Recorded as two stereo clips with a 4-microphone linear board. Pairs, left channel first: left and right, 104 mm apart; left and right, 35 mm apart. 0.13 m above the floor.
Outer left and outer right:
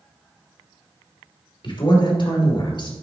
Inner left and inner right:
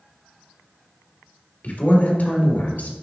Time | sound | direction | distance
1.6 | a man speaking | 55° left (ahead or behind) | 2.5 m